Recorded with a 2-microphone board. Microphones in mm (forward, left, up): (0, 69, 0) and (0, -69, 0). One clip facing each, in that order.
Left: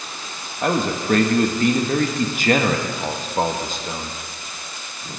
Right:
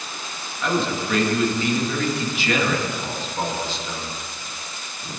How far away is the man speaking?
About 1.3 m.